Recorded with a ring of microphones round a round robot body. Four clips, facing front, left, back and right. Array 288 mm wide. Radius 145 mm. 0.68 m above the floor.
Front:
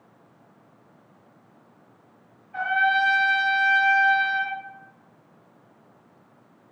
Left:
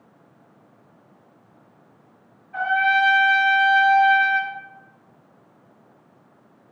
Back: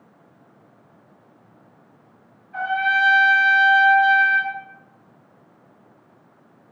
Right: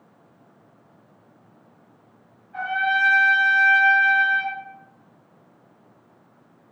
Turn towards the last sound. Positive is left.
turn(degrees=115)